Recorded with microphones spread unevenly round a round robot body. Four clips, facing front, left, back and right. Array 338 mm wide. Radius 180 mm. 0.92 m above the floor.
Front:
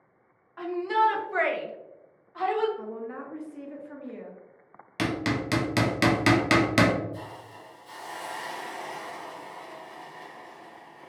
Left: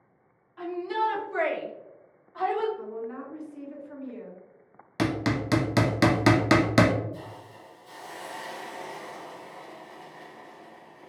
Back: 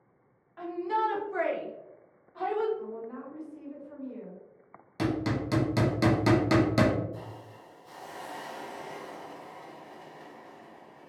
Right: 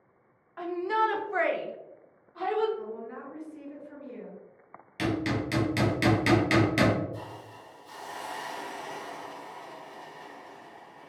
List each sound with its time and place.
0.6 s a shout: 60° right, 1.3 m; by 2.7 s 115° left, 0.8 m
2.8 s a woman speaking: straight ahead, 1.1 m
5.0 s hammering: 65° left, 0.7 m
7.1 s a hiss: 175° left, 0.9 m